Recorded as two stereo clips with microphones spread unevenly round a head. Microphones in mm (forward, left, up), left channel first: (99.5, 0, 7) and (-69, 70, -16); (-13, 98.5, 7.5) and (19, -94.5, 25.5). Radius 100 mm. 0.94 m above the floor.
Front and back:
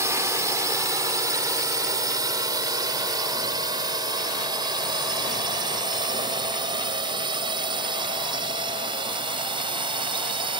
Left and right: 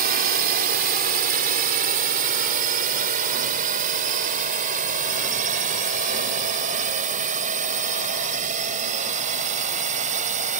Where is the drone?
125° right; by 10.6 s 135° right.